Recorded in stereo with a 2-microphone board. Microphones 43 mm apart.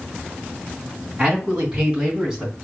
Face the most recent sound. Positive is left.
turn(degrees=-10)  # may be behind; listen again after turning